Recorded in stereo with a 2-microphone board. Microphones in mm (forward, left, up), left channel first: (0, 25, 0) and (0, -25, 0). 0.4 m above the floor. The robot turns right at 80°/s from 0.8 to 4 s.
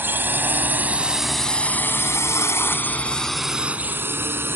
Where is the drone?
50° right (ahead or behind).